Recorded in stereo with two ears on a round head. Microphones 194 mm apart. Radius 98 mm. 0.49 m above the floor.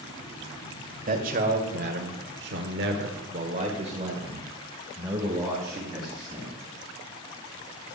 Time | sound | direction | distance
1.1 | a man speaking | 40° right (ahead or behind) | 1.9 m